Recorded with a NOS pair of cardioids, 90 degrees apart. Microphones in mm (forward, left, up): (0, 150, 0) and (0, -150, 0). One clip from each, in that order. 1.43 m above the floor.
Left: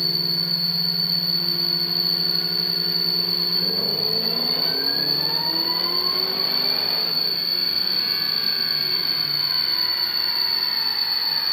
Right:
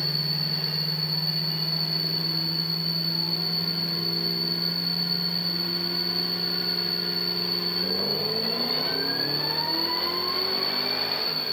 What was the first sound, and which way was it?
An insect, 50° left.